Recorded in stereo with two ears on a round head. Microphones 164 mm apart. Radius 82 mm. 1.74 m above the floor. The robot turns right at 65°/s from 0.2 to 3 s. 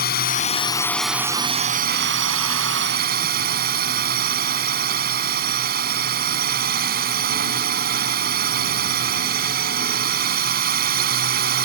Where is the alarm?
No alarm in this recording.